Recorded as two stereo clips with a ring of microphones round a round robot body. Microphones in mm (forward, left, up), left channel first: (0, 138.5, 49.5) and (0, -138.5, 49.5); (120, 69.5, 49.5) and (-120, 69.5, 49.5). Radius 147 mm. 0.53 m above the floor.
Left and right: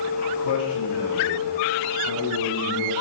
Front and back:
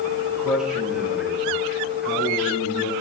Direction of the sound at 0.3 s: 95° left.